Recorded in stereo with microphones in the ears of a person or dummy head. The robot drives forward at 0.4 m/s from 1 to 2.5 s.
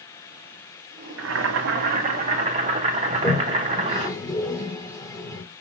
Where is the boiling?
75° right (ahead or behind), 0.6 m; by 4.1 s 40° right (ahead or behind), 0.8 m.